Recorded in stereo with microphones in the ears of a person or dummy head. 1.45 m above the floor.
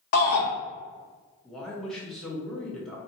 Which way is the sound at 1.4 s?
5° left (ahead or behind).